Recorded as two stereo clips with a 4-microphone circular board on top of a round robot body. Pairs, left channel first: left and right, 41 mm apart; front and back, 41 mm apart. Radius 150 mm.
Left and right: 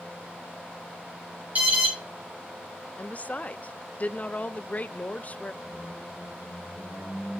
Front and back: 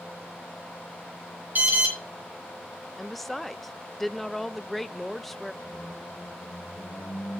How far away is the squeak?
About 9.5 m.